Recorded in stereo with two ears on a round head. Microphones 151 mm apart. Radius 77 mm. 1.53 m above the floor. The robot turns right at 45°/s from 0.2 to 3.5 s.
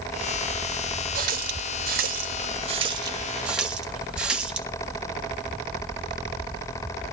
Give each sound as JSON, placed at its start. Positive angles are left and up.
{"t": 1.1, "sound": "a running tap", "side_deg": -55, "distance_m": 1.5}